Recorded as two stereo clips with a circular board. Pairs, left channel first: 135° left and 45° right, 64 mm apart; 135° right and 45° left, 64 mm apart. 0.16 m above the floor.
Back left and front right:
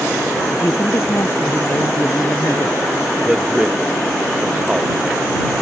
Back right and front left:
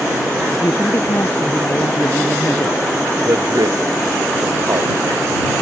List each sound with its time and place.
0.5 s a woman speaking: straight behind
3.2 s a man speaking: 30° left